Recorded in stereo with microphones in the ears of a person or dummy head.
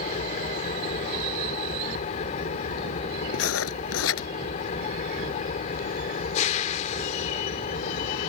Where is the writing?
80° left.